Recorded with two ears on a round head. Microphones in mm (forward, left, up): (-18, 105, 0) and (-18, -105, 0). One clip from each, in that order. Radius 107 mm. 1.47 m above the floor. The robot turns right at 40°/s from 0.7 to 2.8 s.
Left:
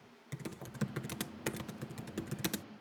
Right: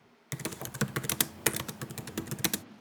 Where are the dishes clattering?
I don't hear dishes clattering.